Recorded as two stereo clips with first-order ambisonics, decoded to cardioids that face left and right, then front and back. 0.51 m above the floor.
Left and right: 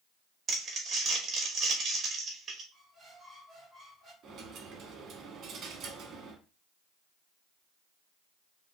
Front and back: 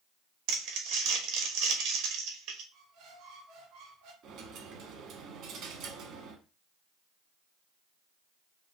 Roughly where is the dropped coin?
Behind right.